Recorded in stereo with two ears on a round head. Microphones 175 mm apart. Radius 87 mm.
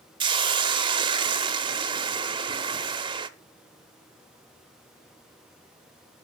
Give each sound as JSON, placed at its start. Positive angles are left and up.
{"t": 0.2, "sound": "a hiss", "side_deg": -25, "distance_m": 0.5}